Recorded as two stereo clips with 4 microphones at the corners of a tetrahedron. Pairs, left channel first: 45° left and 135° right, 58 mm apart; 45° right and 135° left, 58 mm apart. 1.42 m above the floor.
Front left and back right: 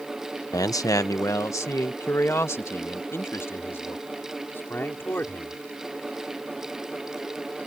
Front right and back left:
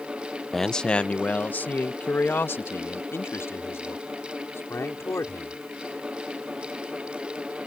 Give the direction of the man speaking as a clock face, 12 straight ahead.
11 o'clock.